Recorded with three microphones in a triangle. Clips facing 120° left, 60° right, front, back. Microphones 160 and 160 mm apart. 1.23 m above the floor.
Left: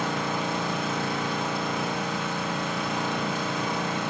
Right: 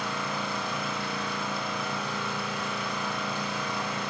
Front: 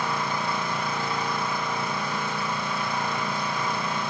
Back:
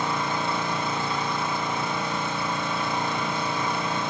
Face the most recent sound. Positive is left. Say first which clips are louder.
# left 5 dB, back 1 dB
turn(degrees=110)